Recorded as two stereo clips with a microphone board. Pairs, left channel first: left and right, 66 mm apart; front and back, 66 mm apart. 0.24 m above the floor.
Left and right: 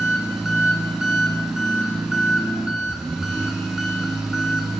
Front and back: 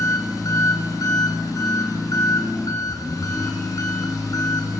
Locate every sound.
0.0 s an engine running: 5° right, 2 m